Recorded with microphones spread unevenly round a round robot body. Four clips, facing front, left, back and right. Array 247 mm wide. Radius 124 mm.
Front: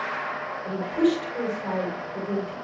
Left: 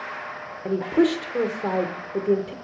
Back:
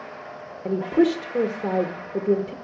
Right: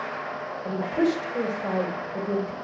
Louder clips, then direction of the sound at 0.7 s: Left 4 dB, back 3 dB; 145° left.